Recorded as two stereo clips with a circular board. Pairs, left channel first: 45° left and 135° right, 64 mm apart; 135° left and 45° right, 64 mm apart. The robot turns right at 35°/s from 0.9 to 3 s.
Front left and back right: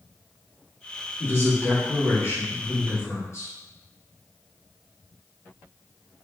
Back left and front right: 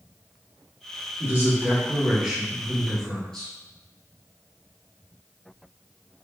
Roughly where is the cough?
I don't hear a cough.